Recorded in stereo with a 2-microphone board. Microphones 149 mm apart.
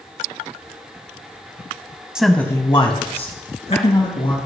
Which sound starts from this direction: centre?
A man speaking, at 2.1 s.